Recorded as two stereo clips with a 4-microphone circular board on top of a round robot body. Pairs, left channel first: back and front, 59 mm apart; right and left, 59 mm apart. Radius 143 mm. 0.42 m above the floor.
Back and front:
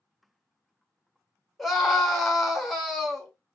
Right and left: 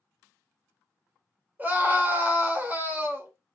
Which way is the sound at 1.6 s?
90° left.